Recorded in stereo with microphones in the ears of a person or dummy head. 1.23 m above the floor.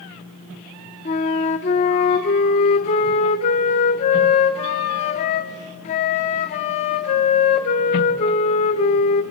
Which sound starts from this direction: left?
A flute, at 1.1 s.